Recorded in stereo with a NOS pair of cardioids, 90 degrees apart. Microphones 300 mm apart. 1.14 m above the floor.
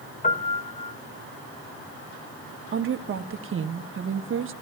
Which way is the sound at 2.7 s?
45° right.